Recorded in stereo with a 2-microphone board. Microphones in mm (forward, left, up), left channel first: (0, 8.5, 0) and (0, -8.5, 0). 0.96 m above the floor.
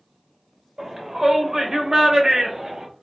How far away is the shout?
About 2 m.